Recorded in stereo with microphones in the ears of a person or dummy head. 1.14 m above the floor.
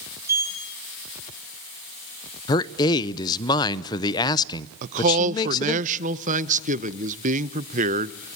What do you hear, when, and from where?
0.2 s a sliding door: 15° right (ahead or behind), 6.5 m
2.5 s a man speaking: 20° left (ahead or behind), 0.7 m
4.8 s a man speaking: 40° right (ahead or behind), 0.7 m